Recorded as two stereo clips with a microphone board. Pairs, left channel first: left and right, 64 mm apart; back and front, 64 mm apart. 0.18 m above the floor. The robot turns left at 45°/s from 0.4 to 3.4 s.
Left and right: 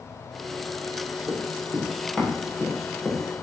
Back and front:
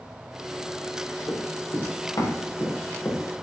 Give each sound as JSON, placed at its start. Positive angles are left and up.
{"t": 1.3, "sound": "running footsteps", "azimuth_deg": -145, "distance_m": 7.5}